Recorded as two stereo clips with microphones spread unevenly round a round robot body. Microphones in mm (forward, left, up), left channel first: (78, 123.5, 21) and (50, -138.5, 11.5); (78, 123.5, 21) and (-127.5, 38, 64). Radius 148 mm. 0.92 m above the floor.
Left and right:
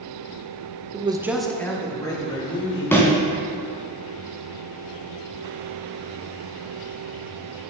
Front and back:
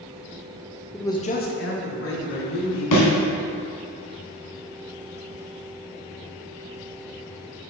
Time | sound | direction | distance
0.9 | a man speaking | 55° right | 0.6 m
2.9 | a thud | 5° left | 1.7 m